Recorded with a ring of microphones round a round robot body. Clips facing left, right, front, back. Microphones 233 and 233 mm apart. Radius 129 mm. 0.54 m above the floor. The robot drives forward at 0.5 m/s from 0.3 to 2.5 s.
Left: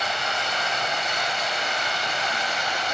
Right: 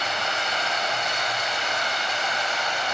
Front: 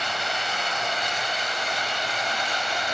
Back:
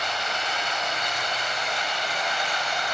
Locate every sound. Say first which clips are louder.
0.0 s running water: even, even; 40° left, 6 m; by 3.0 s 50° left, 5 m